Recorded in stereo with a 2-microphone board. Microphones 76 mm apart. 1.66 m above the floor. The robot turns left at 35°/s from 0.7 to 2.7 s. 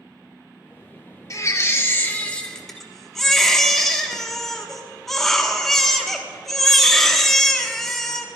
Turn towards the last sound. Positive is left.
turn(degrees=5)